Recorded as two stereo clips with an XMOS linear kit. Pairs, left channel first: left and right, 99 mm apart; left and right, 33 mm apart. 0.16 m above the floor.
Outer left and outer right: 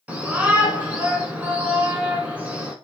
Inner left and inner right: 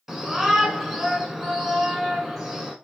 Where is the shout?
15° right (ahead or behind), 1.4 m.